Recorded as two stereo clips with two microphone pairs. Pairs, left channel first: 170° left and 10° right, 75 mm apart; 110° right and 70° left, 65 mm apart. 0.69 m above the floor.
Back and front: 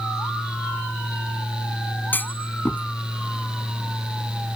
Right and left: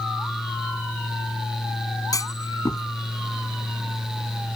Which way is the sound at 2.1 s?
130° right.